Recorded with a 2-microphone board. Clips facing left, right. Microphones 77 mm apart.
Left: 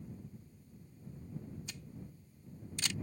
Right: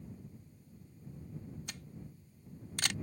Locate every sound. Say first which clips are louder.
1.7 s a camera shutter: even; 60° right (ahead or behind)